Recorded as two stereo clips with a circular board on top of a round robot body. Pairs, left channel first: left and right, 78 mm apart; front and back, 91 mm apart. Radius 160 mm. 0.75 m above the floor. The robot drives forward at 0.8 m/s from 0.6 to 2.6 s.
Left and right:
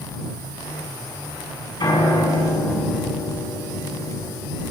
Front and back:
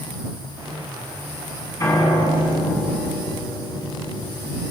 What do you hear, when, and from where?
1.8 s a piano: 55° left, 8.5 m; by 4.7 s 60° left, 8 m